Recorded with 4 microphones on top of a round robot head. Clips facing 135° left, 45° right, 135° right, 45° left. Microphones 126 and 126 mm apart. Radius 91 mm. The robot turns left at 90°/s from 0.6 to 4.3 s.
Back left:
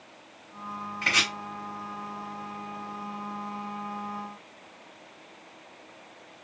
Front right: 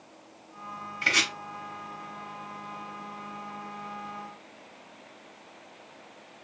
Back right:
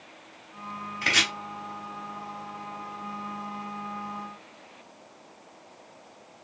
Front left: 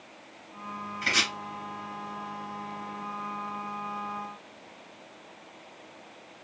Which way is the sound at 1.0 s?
125° right.